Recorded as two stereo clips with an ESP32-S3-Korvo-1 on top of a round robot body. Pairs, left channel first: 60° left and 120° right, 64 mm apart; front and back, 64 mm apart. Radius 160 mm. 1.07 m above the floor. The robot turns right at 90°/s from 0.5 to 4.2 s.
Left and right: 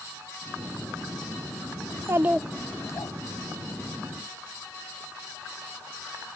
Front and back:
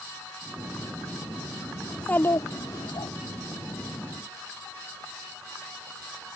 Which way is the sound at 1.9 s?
85° right.